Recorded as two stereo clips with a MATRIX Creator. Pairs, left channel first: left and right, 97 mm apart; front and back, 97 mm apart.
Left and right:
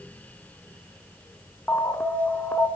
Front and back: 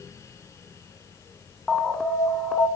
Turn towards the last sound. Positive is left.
turn(degrees=70)